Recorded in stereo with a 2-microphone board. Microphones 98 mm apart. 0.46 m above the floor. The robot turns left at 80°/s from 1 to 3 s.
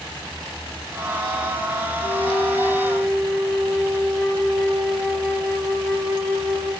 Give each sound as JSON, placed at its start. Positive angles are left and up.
{"t": 2.0, "sound": "a flute", "azimuth_deg": 90, "distance_m": 1.2}